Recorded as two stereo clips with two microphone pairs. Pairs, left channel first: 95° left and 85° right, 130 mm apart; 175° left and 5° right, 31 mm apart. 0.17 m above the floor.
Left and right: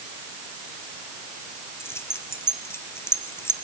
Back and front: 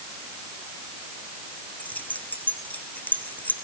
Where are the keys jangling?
165° left, 2 m.